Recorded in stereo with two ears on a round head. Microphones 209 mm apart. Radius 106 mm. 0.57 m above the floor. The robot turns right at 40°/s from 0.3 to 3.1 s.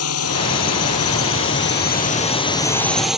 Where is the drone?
70° left; by 3.2 s straight behind.